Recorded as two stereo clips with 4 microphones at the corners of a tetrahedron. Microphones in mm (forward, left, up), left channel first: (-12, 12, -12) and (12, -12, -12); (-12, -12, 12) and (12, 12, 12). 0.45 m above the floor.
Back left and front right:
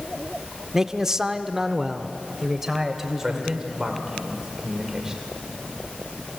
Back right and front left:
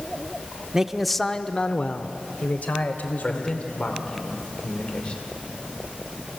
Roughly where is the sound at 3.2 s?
Right.